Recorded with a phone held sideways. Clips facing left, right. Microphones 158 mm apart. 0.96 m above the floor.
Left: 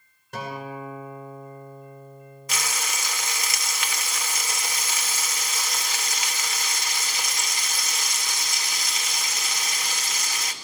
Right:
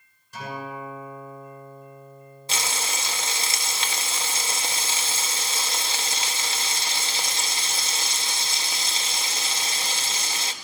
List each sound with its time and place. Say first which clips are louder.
0.3 s a guitar: left 1 dB; 60° left (ahead or behind), 10 m
2.5 s frying: right 1 dB; 30° right (ahead or behind), 1.4 m